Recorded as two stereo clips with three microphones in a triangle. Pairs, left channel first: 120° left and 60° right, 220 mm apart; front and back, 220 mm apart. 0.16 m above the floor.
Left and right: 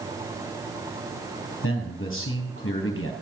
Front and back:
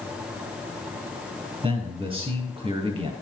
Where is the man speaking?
115° left, 3 m.